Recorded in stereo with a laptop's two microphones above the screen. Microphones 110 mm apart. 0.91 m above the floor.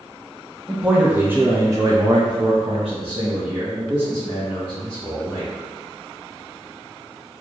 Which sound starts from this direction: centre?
A man speaking, at 0.7 s.